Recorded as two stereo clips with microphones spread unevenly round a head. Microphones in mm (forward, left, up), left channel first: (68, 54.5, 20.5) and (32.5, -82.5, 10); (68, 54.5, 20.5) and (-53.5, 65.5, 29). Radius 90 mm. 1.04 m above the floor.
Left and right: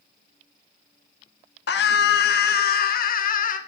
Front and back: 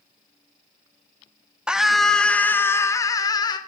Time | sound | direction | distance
1.7 | a scream | 90° left | 1.5 m